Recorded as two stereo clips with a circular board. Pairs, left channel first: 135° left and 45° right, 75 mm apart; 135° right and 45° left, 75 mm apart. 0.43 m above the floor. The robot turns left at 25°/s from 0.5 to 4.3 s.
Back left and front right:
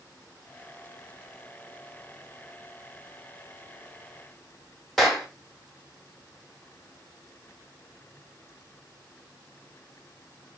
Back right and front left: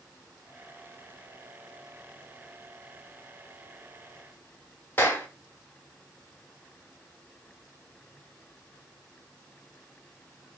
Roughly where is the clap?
Behind right.